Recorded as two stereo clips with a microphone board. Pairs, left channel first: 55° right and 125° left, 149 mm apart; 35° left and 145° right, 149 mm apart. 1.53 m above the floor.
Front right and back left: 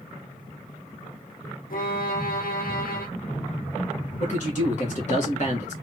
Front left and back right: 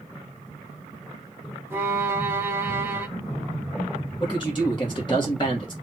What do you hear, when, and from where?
1.7 s a violin: 70° right, 0.8 m
4.2 s a man speaking: 25° right, 1.4 m